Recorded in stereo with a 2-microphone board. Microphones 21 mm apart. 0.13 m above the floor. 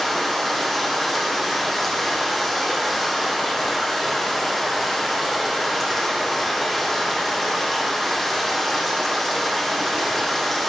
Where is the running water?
Centre (ahead or behind), 5 m.